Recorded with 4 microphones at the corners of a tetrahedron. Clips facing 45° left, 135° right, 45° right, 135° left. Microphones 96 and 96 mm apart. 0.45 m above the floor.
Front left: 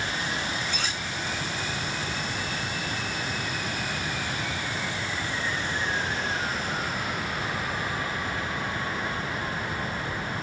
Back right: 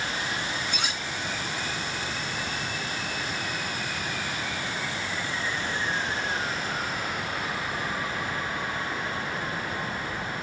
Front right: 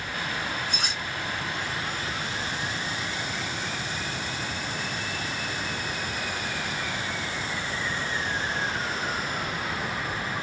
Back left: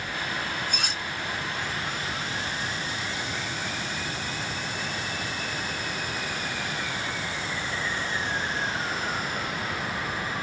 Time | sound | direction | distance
0.7 | cutlery clinking | 150° left | 1.0 m